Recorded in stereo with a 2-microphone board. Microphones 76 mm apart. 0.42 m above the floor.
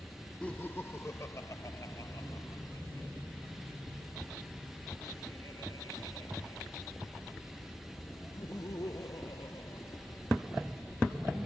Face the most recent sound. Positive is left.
turn(degrees=55)  # may be behind; listen again after turning